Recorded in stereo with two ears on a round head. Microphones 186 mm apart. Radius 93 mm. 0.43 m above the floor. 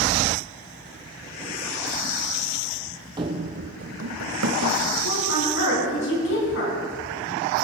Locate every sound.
3.2 s running footsteps: 20° right (ahead or behind), 0.9 m; by 4.8 s 80° right, 1.9 m
5.0 s a woman speaking: 65° left (ahead or behind), 4.5 m